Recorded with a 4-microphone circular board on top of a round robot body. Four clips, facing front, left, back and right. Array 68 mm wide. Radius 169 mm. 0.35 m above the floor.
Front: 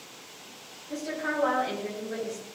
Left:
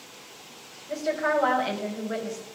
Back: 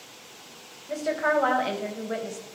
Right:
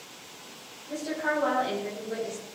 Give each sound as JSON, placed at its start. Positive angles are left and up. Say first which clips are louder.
{"t": 0.9, "sound": "a woman speaking", "louder": "left 4 dB, back 7 dB", "azimuth_deg": 150, "distance_m": 3.0}